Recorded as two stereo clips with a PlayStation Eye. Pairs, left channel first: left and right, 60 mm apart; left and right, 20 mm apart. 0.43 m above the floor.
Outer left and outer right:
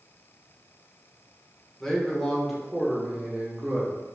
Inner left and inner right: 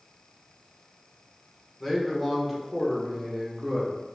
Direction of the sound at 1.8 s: 5° left (ahead or behind).